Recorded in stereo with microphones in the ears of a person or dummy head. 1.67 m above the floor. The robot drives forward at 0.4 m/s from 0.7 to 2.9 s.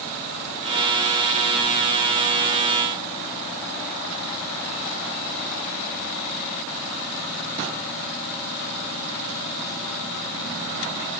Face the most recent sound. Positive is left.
No sound to turn to.